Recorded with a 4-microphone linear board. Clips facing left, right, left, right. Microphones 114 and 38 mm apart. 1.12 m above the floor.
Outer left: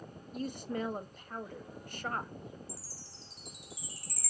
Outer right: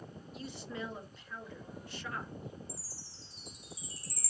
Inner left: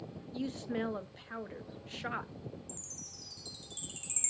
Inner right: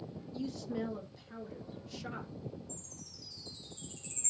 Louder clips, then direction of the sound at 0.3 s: Outer left 7 dB, inner left 2 dB; 45° left (ahead or behind).